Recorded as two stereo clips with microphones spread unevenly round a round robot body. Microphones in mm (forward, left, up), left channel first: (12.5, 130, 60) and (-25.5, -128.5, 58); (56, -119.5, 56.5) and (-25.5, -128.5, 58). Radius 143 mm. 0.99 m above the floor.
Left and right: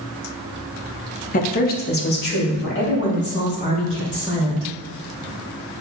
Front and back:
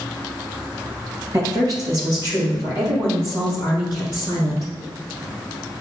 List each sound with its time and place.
1.3 s a woman speaking: 135° left, 0.8 m; by 4.7 s 130° left, 4 m